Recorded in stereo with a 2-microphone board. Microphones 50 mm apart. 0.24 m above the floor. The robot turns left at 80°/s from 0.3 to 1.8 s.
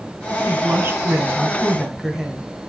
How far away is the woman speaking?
About 2 m.